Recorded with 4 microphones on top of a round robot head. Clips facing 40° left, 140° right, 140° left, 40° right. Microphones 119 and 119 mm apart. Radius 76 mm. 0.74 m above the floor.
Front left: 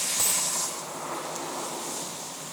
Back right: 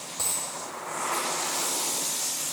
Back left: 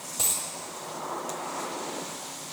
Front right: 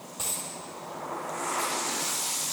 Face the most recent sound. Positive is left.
turn(degrees=105)